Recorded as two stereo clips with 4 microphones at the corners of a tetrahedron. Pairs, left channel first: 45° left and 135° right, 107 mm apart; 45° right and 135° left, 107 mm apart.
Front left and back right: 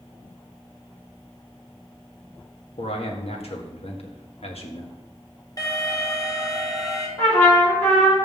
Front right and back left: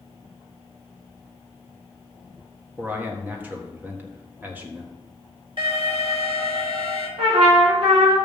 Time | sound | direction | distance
2.8 | a man speaking | 60° left | 1.6 m
5.6 | an alarm | 95° left | 2 m
7.2 | a trumpet | 110° left | 3 m